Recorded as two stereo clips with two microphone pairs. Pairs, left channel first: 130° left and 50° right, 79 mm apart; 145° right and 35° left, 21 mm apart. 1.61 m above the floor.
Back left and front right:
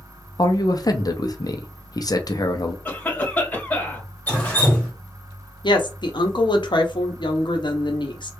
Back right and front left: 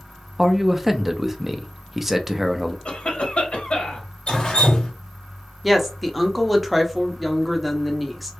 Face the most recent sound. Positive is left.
turn(degrees=125)